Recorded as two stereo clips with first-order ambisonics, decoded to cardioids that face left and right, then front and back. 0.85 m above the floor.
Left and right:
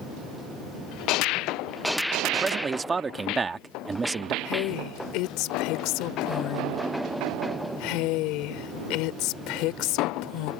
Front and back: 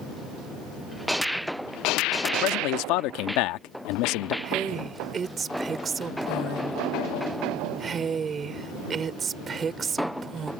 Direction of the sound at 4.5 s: 110° left.